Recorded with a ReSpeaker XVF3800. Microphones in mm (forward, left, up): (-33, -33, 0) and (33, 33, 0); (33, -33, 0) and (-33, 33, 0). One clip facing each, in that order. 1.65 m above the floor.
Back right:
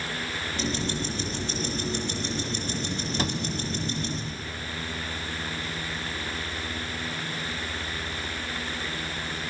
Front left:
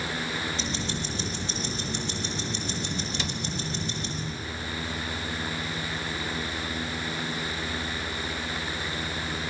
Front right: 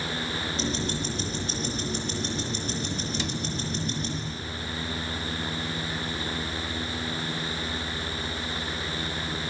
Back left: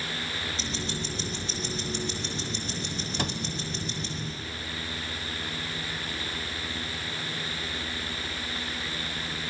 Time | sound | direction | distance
0.6 | ticking | 95° right | 9 m
3.2 | a cupboard door | 175° left | 1.3 m